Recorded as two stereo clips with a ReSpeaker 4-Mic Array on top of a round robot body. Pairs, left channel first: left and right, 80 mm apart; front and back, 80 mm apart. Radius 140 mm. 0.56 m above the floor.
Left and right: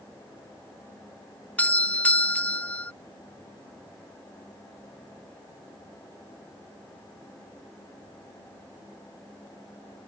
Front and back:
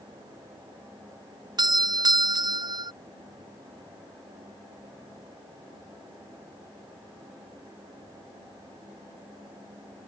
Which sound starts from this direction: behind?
A doorbell, at 1.6 s.